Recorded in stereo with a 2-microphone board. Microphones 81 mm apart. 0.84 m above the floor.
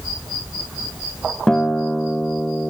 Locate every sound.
1.5 s a guitar: 5° left (ahead or behind), 0.7 m